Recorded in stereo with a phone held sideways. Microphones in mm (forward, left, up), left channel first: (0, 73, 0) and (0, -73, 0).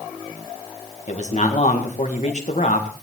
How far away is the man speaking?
About 2.0 m.